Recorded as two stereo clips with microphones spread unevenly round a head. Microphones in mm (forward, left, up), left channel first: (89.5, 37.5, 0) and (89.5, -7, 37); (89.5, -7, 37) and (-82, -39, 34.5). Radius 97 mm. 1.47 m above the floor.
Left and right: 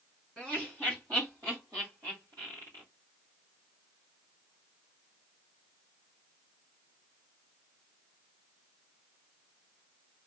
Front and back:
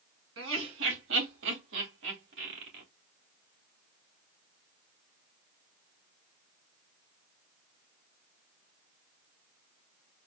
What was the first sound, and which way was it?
Laughter, 175° right.